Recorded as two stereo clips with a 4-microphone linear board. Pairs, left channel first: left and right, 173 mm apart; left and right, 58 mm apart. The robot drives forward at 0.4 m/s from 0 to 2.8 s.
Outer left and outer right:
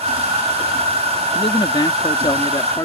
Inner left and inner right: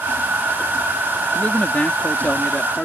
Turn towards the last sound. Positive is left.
turn(degrees=20)  # may be behind; listen again after turning